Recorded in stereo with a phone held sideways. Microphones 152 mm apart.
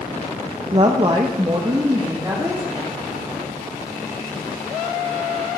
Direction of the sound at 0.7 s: 40° right (ahead or behind).